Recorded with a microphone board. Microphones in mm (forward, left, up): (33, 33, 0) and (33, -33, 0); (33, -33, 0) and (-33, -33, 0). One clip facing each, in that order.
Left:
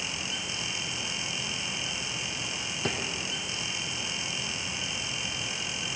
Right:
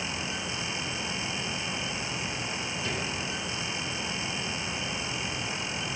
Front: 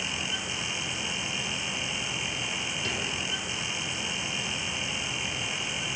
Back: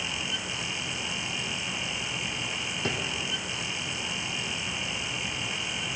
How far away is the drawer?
About 1.7 m.